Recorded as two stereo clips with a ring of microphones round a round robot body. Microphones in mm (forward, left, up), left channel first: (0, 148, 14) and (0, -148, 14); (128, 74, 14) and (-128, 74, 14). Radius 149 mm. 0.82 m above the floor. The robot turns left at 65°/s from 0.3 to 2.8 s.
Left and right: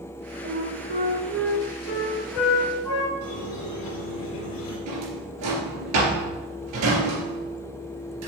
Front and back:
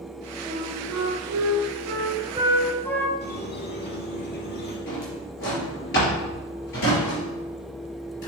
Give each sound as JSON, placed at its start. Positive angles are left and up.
{"t": 0.4, "sound": "a flute", "azimuth_deg": -125, "distance_m": 1.3}
{"t": 3.2, "sound": "a squeak", "azimuth_deg": 50, "distance_m": 2.5}
{"t": 4.9, "sound": "a drawer", "azimuth_deg": -55, "distance_m": 4.0}